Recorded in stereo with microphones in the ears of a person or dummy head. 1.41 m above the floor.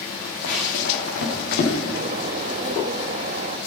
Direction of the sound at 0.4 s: 65° left (ahead or behind).